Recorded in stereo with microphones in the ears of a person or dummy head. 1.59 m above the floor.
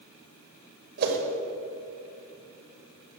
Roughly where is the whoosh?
Right.